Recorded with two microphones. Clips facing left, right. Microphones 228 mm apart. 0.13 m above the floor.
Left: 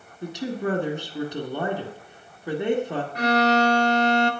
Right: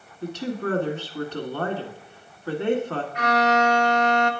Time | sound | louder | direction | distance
0.2 | a woman speaking | even | 15° left (ahead or behind) | 1.2 m
3.1 | a violin | left 2 dB | 40° left (ahead or behind) | 0.5 m